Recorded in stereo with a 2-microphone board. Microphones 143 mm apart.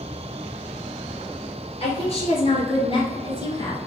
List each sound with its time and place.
1.8 s a woman speaking: 45° left (ahead or behind), 1.8 m; by 3.8 s 30° left (ahead or behind), 1.5 m